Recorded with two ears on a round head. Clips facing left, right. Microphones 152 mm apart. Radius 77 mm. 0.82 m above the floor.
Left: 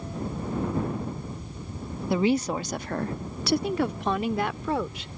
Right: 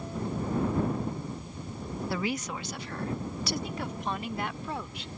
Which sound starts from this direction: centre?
A woman speaking, at 2.1 s.